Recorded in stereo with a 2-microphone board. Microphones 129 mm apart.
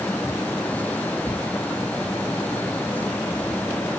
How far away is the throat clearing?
I don't hear throat clearing.